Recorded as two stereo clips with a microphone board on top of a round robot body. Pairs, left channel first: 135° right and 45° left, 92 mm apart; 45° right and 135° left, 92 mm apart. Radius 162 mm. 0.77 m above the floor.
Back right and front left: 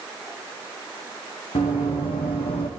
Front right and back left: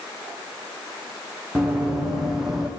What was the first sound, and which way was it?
Running footsteps, 140° right.